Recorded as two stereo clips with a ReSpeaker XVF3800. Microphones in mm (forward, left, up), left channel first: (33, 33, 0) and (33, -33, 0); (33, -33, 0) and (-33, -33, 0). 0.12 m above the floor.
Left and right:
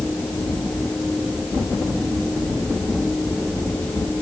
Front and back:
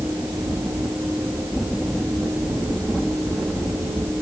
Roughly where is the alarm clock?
I don't hear an alarm clock.